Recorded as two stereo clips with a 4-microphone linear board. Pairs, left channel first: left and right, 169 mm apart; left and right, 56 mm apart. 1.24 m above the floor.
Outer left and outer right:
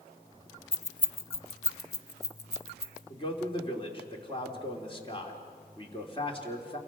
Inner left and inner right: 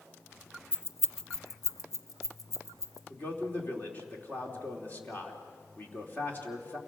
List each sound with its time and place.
0.7 s keys jangling: 35° left (ahead or behind), 0.6 m; by 3.0 s 70° left (ahead or behind), 1.6 m
3.1 s a man speaking: 30° left (ahead or behind), 3 m